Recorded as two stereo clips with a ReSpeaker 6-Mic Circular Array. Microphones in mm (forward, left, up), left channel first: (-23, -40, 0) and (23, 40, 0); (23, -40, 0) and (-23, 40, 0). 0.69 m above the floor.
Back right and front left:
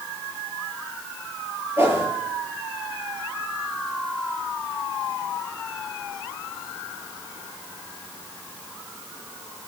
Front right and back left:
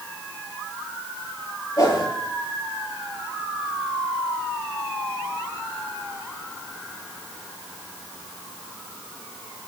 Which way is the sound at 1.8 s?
5° right.